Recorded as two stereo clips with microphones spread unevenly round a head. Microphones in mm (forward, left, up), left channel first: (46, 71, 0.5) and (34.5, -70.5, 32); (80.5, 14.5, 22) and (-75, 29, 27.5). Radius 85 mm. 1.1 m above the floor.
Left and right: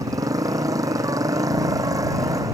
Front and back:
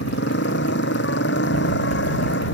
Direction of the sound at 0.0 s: 30° right.